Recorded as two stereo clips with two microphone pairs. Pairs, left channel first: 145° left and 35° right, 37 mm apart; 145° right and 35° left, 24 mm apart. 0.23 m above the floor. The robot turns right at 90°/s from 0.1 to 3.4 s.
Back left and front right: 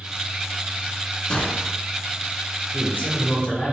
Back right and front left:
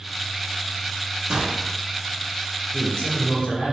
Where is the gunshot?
80° left, 0.8 m; by 1.7 s 115° left, 0.8 m.